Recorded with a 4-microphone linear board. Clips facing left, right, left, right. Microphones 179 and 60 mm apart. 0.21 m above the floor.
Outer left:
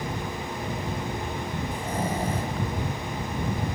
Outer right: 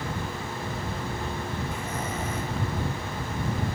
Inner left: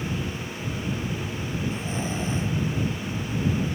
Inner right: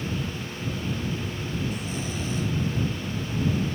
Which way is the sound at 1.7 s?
35° left (ahead or behind).